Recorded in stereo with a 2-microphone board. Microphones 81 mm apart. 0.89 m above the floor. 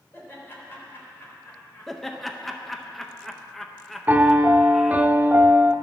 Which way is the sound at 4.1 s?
20° right (ahead or behind).